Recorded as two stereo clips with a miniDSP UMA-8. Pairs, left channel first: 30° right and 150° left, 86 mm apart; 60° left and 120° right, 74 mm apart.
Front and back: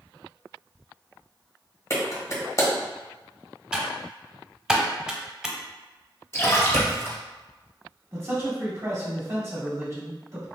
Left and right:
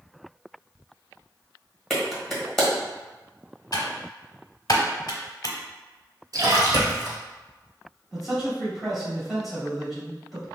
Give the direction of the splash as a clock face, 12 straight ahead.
3 o'clock.